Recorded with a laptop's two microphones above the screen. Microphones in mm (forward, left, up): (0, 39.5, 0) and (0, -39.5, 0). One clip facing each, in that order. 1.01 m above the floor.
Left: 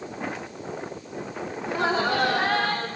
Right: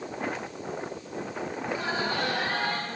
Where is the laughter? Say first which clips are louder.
Left 7 dB; 65° left (ahead or behind), 1.8 m; by 2.9 s 85° left, 2.5 m.